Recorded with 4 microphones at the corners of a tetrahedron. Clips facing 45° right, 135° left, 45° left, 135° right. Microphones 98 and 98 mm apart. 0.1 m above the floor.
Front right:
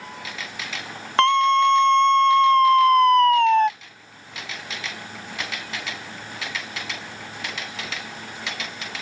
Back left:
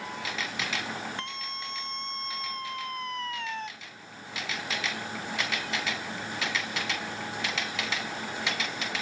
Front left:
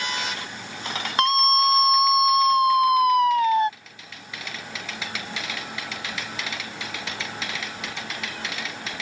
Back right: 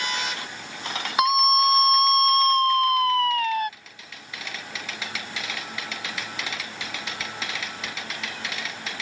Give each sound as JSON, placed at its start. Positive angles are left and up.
{"t": 1.2, "sound": "a scream", "azimuth_deg": -50}